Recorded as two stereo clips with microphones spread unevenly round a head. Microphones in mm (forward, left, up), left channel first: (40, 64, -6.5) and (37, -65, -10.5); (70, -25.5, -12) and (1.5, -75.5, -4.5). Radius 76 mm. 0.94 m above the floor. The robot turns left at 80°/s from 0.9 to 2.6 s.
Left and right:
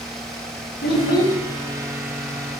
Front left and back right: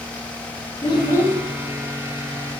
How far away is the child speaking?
About 2.5 m.